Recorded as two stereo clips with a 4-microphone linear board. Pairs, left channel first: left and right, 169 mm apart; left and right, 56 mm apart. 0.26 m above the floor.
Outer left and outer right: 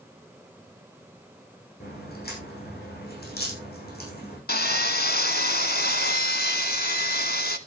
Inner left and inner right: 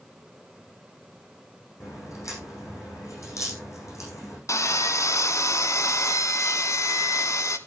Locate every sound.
1.8 s a crack: 70° left (ahead or behind), 9.5 m
4.5 s sawing: 70° left (ahead or behind), 1.0 m